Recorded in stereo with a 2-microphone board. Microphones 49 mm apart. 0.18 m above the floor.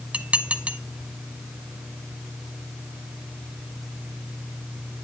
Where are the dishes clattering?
25° right (ahead or behind), 0.9 m.